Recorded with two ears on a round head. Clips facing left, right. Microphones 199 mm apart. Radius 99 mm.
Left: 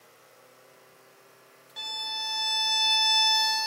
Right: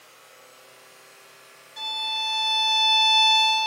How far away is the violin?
About 1.2 m.